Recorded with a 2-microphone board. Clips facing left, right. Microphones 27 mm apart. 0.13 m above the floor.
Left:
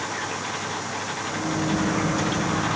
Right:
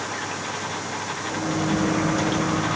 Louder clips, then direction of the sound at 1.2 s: Right 2 dB; 65° right (ahead or behind).